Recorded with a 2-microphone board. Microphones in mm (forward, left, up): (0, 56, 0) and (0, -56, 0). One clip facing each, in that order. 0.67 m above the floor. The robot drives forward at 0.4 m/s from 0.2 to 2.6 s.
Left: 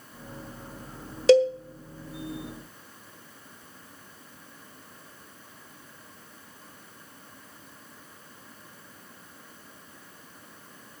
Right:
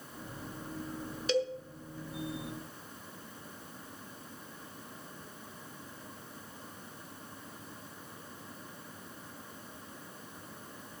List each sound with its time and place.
1.3 s a cowbell: 85° left, 1.2 m; by 1.5 s 80° left, 1.2 m